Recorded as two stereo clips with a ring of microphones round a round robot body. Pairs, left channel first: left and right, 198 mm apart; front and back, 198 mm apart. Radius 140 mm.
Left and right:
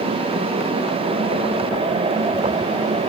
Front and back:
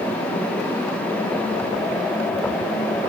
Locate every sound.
Only background noise.